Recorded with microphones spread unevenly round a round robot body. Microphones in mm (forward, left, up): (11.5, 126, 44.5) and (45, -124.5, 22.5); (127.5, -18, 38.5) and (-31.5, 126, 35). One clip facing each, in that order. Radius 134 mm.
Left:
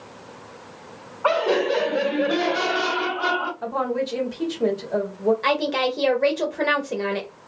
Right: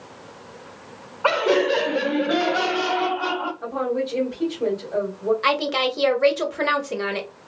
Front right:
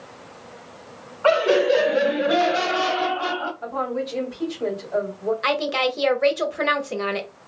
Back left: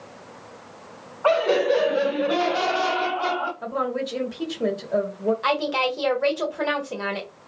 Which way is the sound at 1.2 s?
90° right.